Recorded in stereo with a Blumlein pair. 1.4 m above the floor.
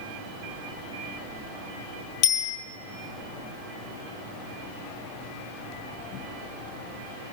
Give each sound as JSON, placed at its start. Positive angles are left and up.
{"t": 2.2, "sound": "a bicycle bell", "azimuth_deg": 40, "distance_m": 5.0}